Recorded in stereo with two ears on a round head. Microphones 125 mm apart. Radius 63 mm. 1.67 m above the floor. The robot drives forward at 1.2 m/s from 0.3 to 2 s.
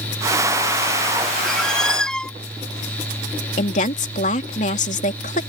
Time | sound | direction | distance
1.4 | a squeak | 5° left (ahead or behind) | ?
3.6 | a woman speaking | 60° left (ahead or behind) | ?